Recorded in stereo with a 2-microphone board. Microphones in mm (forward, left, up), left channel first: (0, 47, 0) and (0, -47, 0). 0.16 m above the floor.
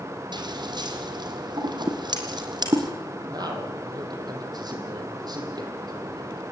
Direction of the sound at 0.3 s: 55° right (ahead or behind).